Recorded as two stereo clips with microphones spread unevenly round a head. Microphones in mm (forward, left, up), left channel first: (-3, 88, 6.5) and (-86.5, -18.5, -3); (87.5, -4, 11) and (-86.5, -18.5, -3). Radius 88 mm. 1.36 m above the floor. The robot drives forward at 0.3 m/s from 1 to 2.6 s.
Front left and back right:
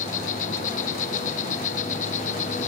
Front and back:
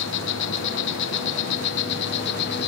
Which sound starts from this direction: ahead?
An insect, at 0.0 s.